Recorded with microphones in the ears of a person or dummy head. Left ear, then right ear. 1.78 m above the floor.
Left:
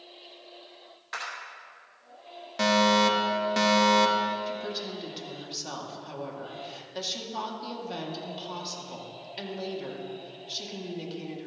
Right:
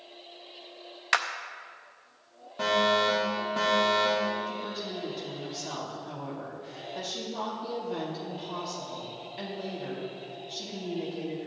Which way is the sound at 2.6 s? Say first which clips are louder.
Left 2 dB; 65° left (ahead or behind).